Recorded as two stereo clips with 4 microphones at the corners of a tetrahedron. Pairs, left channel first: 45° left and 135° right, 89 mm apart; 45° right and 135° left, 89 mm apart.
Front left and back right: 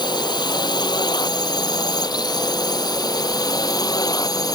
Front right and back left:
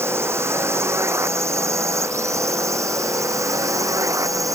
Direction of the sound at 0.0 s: 75° left.